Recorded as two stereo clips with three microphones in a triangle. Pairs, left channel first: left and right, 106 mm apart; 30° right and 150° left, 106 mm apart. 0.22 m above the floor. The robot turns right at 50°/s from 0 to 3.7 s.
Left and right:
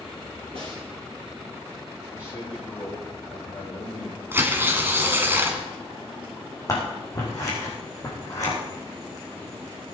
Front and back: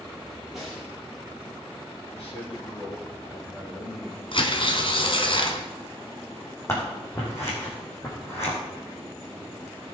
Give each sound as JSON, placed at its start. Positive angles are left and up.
{"t": 0.5, "sound": "a snare drum", "azimuth_deg": -120, "distance_m": 6.5}
{"t": 2.1, "sound": "a man speaking", "azimuth_deg": -30, "distance_m": 6.5}
{"t": 4.3, "sound": "tearing paper", "azimuth_deg": -25, "distance_m": 1.6}
{"t": 6.7, "sound": "scissors", "azimuth_deg": 35, "distance_m": 4.5}